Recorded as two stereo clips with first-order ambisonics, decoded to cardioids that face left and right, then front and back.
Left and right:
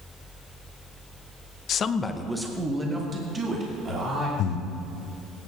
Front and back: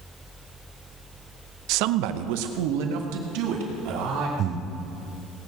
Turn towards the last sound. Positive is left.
turn(degrees=130)